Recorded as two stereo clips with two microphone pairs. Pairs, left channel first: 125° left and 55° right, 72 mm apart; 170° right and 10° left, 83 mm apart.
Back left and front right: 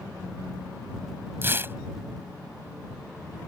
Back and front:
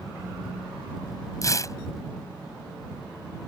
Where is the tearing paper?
115° right.